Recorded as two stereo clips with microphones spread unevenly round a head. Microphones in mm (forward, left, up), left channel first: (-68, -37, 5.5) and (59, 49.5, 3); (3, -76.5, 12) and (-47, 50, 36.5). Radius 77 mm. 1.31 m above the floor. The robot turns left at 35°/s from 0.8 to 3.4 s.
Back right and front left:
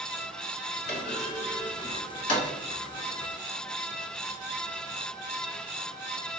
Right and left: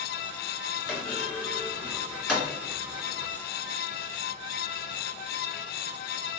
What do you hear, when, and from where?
0.9 s a clunk: 130° right, 1.3 m; by 2.5 s 175° left, 1.3 m